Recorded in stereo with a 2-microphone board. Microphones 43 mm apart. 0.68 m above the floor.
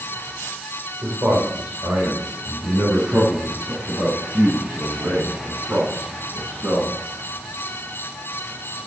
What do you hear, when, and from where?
1.0 s a man speaking: 70° right (ahead or behind), 3 m; by 6.9 s 80° right, 8 m